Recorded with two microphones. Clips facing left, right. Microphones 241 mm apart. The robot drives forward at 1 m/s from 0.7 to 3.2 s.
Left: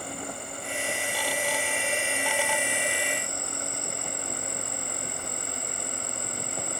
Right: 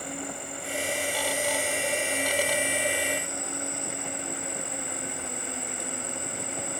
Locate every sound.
0.0 s an insect: 15° right (ahead or behind); by 6.8 s 20° right (ahead or behind)